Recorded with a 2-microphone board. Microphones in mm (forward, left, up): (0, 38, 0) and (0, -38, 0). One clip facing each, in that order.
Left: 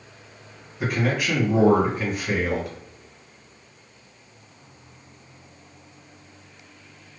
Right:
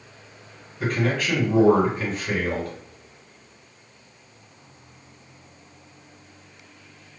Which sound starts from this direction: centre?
A man speaking, at 0.8 s.